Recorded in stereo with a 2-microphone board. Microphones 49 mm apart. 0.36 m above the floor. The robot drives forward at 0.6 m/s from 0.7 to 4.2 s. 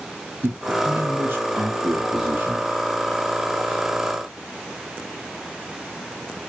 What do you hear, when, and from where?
0.4 s a man speaking: 50° right (ahead or behind), 2.5 m; by 2.7 s 35° right (ahead or behind), 3 m